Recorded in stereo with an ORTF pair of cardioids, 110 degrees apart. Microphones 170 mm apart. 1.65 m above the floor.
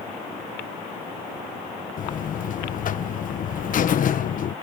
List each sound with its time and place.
2.0 s a buzzer: 55° left